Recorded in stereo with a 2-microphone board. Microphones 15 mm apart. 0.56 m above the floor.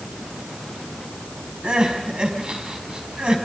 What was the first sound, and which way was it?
Crying, 75° right (ahead or behind).